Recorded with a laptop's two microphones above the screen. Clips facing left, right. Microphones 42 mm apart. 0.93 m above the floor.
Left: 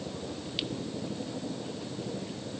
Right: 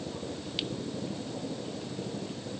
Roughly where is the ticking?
No ticking in this recording.